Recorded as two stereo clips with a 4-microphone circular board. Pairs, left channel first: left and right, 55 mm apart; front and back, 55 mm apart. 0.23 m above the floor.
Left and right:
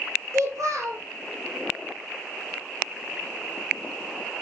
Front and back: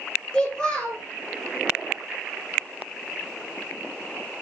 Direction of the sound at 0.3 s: 80° right.